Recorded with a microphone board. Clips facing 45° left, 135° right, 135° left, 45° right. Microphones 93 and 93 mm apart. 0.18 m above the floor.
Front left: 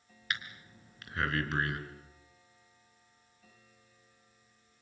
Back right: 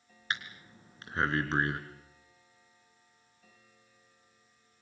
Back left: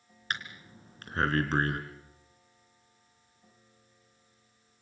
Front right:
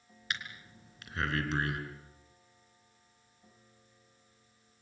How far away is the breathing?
About 3 m.